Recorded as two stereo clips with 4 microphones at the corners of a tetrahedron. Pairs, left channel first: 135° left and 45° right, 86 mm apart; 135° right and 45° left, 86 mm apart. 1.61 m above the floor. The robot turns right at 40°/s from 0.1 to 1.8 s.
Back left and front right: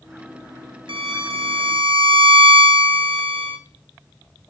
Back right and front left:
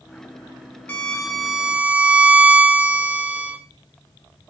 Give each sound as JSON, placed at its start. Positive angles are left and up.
{"t": 0.9, "sound": "a violin", "azimuth_deg": -65, "distance_m": 1.3}